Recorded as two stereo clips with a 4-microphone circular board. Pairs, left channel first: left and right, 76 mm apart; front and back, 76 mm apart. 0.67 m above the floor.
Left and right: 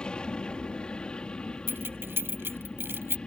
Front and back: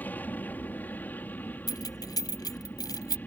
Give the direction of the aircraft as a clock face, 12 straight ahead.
11 o'clock.